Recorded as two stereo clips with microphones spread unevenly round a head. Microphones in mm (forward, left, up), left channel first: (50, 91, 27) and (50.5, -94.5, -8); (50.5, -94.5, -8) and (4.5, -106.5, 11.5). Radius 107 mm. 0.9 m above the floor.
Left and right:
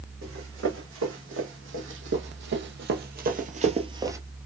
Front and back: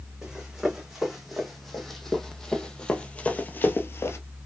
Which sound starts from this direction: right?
Running footsteps, at 0.2 s.